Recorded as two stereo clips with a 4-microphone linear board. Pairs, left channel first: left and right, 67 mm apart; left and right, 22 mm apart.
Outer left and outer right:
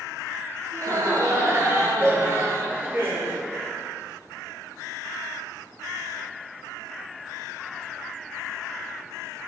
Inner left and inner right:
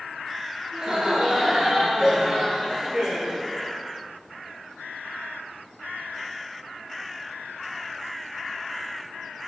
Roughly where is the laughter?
Right.